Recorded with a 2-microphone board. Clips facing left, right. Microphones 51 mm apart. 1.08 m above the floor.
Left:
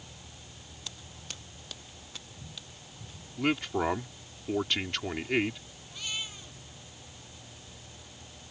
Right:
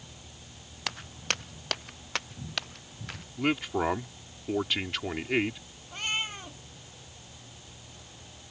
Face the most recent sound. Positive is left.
turn(degrees=-45)  # may be behind; listen again after turning